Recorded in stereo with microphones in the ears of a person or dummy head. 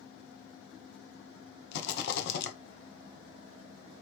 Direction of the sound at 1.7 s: 65° left (ahead or behind).